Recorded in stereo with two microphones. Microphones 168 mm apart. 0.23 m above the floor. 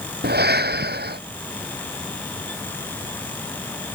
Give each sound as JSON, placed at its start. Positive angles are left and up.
{"t": 0.2, "sound": "breathing", "side_deg": -75}